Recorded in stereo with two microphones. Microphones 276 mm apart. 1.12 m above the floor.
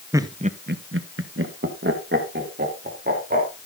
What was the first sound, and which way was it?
Laughter, 10° right (ahead or behind).